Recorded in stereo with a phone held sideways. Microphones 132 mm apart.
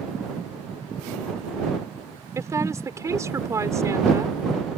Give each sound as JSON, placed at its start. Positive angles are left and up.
{"t": 2.4, "sound": "a woman speaking", "side_deg": -20}